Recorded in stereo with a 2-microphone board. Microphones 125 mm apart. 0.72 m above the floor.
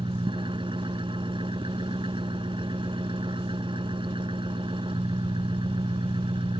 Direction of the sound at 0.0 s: 40° right (ahead or behind).